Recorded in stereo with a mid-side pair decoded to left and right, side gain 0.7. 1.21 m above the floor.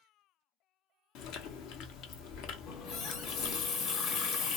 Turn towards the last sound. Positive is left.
turn(degrees=55)